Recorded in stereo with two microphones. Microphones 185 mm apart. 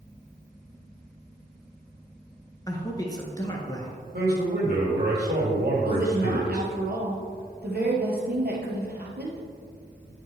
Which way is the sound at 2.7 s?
20° left (ahead or behind).